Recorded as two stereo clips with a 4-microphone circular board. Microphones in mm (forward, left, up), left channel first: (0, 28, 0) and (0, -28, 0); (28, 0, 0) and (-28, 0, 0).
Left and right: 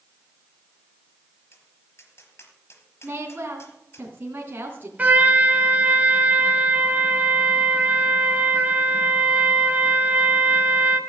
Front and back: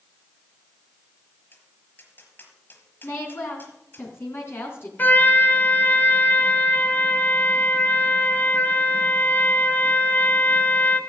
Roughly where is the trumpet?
Ahead right.